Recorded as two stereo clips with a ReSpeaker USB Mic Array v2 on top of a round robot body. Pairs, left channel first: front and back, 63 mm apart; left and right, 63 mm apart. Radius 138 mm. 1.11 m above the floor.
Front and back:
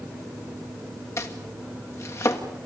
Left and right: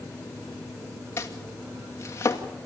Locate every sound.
1.2 s chopping: 40° left, 2 m